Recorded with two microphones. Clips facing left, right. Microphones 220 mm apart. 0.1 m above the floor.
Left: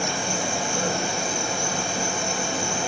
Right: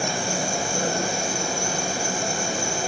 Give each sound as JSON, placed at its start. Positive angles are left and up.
{"t": 0.0, "sound": "an insect", "side_deg": -40, "distance_m": 2.5}